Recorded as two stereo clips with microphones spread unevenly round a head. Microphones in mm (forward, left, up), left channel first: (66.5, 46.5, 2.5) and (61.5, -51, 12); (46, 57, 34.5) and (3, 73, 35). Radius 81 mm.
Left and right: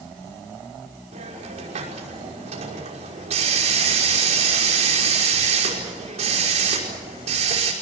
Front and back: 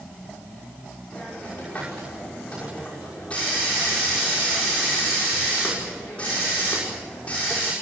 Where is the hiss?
100° right, 5.5 m.